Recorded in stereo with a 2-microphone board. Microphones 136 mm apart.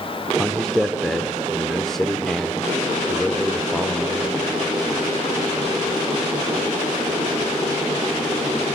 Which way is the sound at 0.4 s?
5° left (ahead or behind).